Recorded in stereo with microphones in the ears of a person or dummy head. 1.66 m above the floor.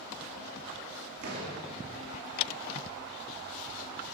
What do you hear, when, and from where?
1.2 s a door slam: 55° right (ahead or behind), 2.5 m